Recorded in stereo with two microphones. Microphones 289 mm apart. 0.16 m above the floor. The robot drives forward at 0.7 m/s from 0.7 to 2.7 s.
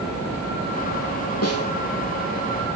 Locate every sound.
1.4 s a snare drum: 60° left (ahead or behind), 2.5 m; by 1.7 s 55° left (ahead or behind), 2.5 m